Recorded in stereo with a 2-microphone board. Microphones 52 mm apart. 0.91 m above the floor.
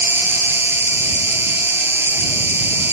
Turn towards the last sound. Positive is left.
turn(degrees=-55)  # may be behind; listen again after turning